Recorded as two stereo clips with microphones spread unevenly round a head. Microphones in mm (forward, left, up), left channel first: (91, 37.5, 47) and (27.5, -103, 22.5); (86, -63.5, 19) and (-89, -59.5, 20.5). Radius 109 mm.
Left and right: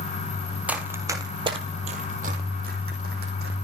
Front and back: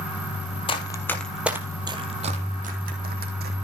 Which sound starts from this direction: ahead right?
Running footsteps, at 0.7 s.